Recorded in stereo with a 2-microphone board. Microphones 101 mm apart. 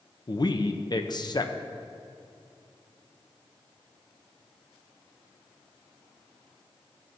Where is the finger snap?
I don't hear a finger snap.